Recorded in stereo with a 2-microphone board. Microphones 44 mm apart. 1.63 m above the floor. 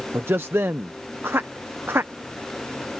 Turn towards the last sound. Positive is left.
turn(degrees=-65)  # may be behind; listen again after turning